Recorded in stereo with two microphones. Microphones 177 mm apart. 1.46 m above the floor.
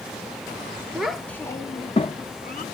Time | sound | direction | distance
0.9 | a child speaking | 5° right (ahead or behind) | 0.7 m